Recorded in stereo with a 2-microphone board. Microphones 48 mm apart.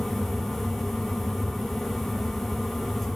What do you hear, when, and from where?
Only background noise.